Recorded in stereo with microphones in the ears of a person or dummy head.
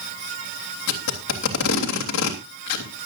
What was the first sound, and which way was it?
Tape being pulled, 85° left.